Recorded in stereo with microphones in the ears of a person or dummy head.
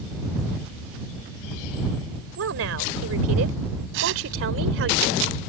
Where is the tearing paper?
70° right (ahead or behind).